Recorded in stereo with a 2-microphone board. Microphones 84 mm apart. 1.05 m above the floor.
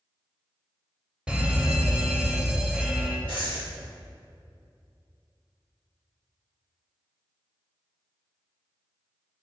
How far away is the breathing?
About 1.7 m.